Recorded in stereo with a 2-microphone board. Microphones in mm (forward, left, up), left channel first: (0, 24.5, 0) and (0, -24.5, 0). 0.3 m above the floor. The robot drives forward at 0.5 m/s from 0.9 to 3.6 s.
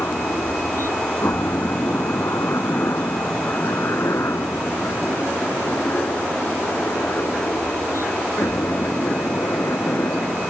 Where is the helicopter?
60° left (ahead or behind); by 10.5 s 70° left (ahead or behind).